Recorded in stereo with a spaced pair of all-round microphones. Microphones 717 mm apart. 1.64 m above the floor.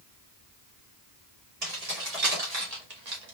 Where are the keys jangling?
55° right (ahead or behind), 2 m; by 3.3 s 65° right (ahead or behind), 1.2 m.